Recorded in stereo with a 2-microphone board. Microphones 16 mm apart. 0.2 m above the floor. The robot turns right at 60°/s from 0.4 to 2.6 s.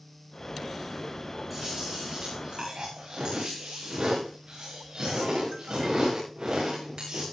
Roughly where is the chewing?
Behind.